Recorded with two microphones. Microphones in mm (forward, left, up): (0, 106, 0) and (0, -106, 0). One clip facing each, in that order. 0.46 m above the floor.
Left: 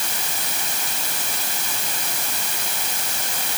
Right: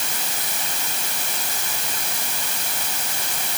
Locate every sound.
Only background noise.